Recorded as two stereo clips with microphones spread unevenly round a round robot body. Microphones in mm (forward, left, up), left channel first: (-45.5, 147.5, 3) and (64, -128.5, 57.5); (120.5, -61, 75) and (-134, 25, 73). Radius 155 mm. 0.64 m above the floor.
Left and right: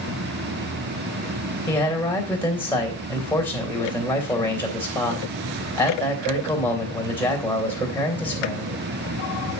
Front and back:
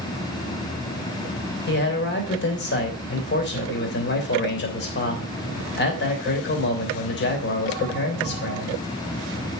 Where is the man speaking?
30° left, 3 m.